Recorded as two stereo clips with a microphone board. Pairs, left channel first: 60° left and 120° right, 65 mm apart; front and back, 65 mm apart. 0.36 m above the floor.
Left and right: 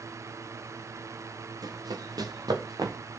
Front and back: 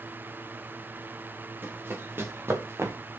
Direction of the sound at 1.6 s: 120° right.